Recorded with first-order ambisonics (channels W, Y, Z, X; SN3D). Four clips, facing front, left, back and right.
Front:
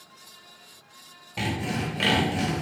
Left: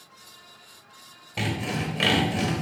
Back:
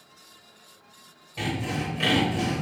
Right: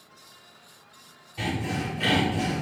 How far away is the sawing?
About 0.9 m.